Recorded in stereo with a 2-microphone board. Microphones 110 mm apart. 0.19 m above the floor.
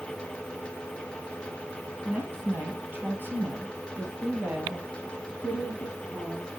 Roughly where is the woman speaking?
Centre.